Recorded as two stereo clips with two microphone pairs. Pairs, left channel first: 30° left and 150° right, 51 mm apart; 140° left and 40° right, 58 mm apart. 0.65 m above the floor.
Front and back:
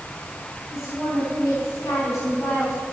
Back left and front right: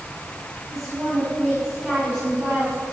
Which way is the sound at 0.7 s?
40° left.